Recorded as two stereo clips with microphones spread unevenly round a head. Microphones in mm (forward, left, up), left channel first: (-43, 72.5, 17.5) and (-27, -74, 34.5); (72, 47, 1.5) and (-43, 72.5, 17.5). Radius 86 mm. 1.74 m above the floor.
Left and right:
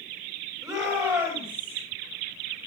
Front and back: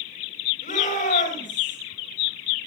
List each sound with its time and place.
0.6 s a shout: 10° right, 9.5 m; by 1.8 s 5° right, 10 m